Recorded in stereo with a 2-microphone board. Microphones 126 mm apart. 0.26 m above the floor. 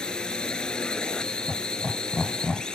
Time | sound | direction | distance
0.0 | a drone | 5° left (ahead or behind) | ?
1.5 | laughter | 5° left (ahead or behind) | ?